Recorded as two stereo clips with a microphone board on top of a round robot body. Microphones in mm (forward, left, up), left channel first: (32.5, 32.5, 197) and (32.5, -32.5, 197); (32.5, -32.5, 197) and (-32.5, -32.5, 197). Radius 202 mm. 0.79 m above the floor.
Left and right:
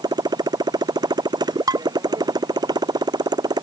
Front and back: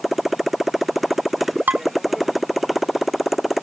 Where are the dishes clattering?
115° right.